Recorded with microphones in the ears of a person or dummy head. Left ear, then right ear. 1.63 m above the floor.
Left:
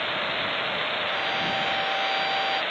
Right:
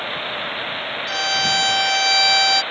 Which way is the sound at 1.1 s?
65° right (ahead or behind).